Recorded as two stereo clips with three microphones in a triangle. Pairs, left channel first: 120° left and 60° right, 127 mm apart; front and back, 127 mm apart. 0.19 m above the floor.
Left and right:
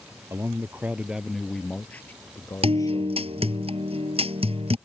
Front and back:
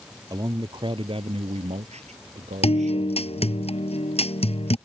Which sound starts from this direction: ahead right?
A guitar, at 2.6 s.